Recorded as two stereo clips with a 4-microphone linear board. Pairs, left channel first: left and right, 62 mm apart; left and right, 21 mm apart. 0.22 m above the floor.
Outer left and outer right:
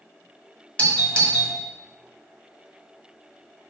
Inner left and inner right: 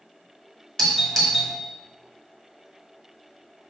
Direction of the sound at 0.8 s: 20° left (ahead or behind).